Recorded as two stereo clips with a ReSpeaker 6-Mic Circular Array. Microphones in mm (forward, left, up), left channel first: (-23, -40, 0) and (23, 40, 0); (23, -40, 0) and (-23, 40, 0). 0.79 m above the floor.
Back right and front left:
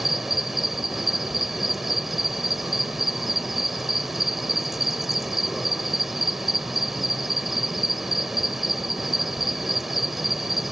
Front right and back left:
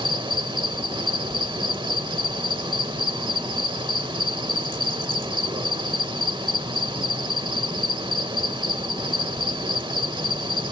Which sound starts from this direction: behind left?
An insect, at 0.0 s.